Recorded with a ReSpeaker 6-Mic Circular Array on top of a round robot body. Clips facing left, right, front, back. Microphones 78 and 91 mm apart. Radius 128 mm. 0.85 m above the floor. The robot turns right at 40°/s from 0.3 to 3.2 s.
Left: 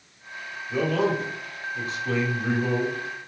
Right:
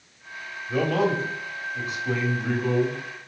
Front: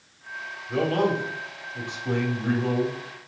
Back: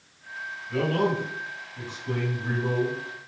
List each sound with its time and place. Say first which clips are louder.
0.7 s a man speaking: right 1 dB, front 2 dB; 60° right, 3 m; by 3.0 s 30° left, 3 m